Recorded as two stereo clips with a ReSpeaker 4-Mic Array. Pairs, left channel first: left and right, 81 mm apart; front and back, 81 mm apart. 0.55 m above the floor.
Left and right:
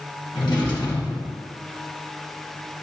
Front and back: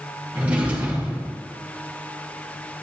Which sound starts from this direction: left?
A drawer, at 0.3 s.